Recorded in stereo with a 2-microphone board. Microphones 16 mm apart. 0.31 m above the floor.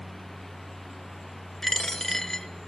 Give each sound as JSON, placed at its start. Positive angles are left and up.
{"t": 1.6, "sound": "a dropped coin", "side_deg": 25, "distance_m": 1.3}